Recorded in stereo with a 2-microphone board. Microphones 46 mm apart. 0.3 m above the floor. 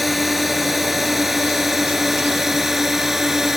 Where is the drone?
5° right (ahead or behind); by 3.6 s 10° right (ahead or behind).